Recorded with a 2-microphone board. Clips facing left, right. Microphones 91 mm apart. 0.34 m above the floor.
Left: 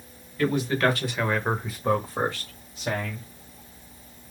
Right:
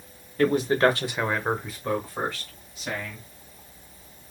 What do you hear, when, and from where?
0.4 s a man speaking: 45° right (ahead or behind), 1.5 m; by 3.3 s 45° left (ahead or behind), 2 m